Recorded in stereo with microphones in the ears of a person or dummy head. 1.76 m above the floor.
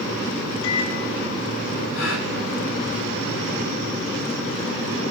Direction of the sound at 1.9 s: 75° left (ahead or behind).